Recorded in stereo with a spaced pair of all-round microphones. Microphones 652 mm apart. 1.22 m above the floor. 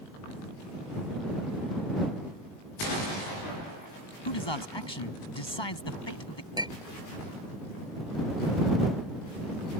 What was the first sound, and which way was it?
A man speaking, 40° left (ahead or behind).